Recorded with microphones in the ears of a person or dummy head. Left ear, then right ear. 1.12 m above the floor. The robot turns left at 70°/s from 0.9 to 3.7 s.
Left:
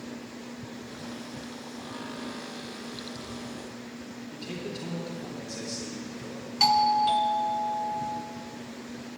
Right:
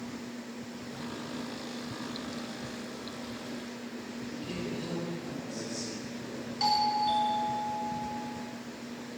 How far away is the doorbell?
About 0.7 m.